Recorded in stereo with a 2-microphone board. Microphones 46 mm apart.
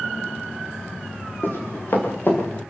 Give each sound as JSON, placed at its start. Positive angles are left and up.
{"t": 1.4, "sound": "running footsteps", "side_deg": 55, "distance_m": 7.5}